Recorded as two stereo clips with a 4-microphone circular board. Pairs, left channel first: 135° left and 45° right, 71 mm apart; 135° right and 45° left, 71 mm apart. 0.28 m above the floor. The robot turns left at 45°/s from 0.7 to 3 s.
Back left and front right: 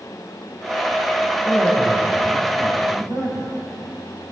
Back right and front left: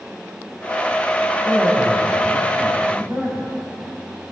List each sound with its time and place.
1.4 s a man speaking: 60° left, 3.5 m; by 3.5 s 10° right, 3.5 m